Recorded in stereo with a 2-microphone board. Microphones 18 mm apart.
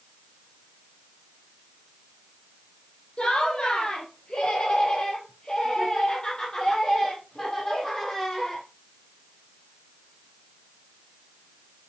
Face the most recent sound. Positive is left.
turn(degrees=30)  # may be behind; listen again after turning